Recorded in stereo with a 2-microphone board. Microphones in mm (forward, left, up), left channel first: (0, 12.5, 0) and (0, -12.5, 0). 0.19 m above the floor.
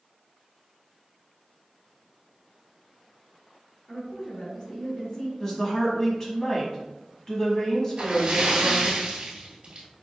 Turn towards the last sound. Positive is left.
turn(degrees=-55)  # may be behind; listen again after turning